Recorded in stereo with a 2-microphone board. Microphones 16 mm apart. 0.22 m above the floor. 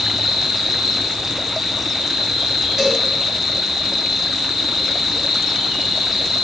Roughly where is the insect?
Right.